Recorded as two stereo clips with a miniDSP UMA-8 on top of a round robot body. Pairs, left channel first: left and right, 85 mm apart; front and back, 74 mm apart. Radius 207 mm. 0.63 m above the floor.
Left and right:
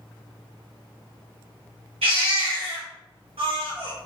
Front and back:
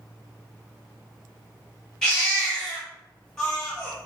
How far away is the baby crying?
About 1.2 m.